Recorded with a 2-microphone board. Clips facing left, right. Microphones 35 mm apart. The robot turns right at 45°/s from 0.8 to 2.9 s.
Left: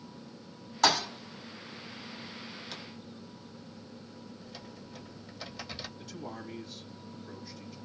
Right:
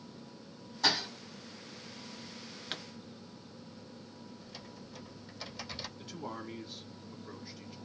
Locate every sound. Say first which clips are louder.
0.8 s a thud: left 5 dB; 85° left, 1.1 m
2.7 s a pop: right 6 dB; 45° right (ahead or behind), 0.7 m
4.4 s typing on a keyboard: left 2 dB; 5° left (ahead or behind), 1.2 m
6.0 s a man speaking: even; 20° right (ahead or behind), 1.7 m